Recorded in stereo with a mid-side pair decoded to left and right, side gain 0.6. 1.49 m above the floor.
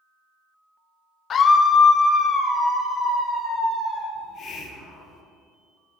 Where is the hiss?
50° left, 1.0 m.